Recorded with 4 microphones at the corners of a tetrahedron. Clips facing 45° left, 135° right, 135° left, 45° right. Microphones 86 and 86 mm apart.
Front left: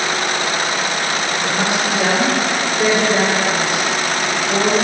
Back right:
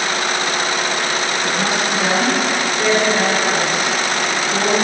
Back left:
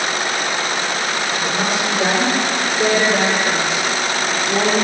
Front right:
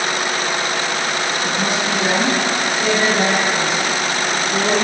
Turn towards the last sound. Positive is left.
turn(degrees=130)